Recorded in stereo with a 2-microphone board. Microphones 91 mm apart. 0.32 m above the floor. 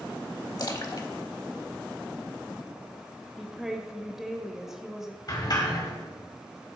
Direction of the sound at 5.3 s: 45° left (ahead or behind).